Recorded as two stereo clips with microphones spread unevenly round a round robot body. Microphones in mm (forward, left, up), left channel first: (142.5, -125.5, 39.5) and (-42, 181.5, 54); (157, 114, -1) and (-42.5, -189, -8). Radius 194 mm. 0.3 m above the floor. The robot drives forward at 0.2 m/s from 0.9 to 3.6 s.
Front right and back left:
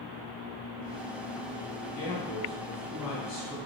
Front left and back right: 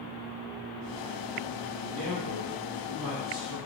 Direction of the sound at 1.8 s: 135° right.